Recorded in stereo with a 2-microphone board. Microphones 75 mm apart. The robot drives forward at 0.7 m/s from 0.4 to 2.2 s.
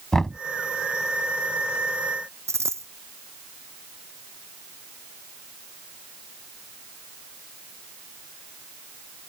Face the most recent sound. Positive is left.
turn(degrees=-40)  # may be behind; listen again after turning